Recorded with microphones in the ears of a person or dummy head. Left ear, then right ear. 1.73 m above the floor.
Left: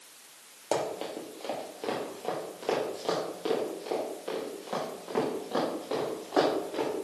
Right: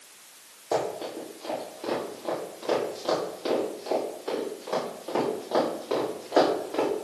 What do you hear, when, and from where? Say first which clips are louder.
0.7 s running footsteps: right 3 dB; 45° left (ahead or behind), 2.5 m; by 6.9 s 20° right (ahead or behind), 4.5 m